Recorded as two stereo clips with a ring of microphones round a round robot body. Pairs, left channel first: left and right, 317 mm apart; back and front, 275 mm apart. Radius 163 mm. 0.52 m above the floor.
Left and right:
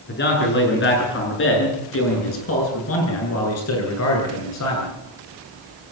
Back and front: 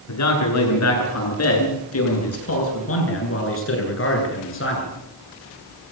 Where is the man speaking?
150° left, 8.5 m; by 4.9 s 130° left, 10 m.